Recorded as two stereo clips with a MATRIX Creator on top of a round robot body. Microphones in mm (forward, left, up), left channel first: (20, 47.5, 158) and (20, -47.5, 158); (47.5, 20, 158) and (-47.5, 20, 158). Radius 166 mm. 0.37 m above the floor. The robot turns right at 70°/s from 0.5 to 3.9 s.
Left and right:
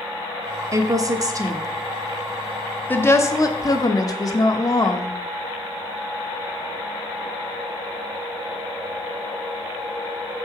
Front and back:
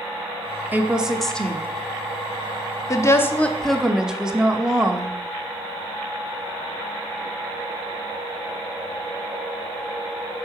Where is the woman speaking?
125° right, 1.1 m; by 5.2 s 100° left, 1.1 m.